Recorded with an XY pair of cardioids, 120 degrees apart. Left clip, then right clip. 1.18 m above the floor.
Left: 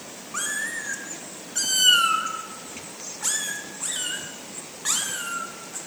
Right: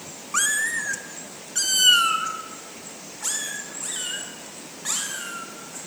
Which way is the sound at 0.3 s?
45° right.